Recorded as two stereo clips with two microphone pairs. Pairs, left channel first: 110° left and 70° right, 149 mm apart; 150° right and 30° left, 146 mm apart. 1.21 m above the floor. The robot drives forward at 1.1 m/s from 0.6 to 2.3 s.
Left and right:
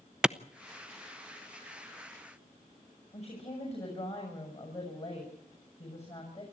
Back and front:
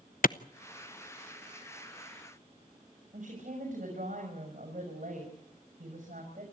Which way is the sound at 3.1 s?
65° left.